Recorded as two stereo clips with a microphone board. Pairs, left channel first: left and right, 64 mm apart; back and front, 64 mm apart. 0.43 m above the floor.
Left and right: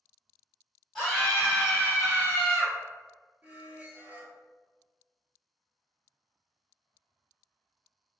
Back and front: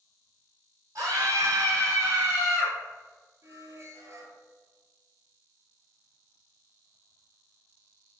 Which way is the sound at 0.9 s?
5° left.